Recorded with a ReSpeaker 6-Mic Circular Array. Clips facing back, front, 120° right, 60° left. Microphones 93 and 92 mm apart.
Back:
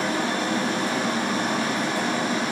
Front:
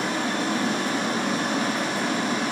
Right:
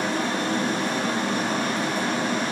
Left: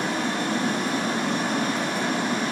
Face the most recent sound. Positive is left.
turn(degrees=140)